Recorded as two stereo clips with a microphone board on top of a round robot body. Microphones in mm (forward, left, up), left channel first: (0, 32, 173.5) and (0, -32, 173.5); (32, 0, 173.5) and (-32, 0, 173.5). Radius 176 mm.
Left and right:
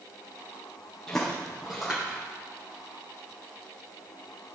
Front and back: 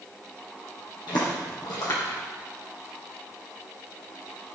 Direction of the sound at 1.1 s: 10° left.